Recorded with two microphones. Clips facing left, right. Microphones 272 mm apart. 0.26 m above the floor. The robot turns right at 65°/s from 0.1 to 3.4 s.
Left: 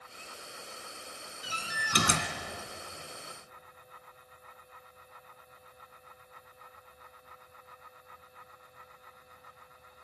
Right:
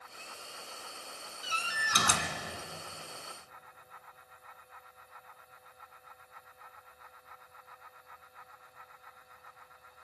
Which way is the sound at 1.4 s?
105° left.